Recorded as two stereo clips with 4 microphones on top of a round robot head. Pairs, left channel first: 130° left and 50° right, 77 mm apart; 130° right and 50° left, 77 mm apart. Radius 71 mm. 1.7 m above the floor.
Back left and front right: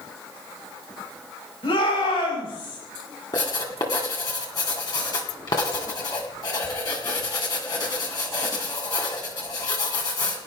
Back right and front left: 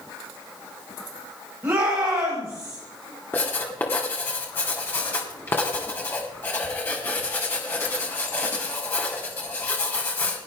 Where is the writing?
170° left, 2.5 m.